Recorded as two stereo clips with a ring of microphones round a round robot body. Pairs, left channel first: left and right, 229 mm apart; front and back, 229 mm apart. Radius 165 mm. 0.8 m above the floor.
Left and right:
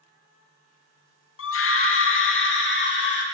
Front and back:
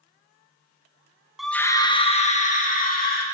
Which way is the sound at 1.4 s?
90° left.